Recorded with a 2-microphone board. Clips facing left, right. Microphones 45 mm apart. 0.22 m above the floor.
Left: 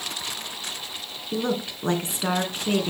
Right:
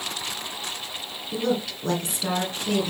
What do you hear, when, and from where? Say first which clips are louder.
1.3 s a woman speaking: right 1 dB; 30° left (ahead or behind), 2.5 m